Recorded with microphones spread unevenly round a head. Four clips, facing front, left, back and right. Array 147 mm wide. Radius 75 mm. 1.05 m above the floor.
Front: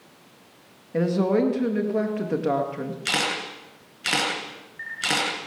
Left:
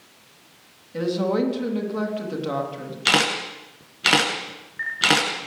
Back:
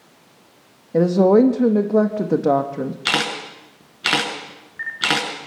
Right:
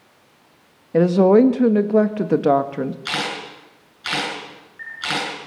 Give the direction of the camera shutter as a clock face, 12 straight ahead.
8 o'clock.